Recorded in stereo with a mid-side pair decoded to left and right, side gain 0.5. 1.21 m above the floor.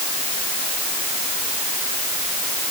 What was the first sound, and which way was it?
Only background noise.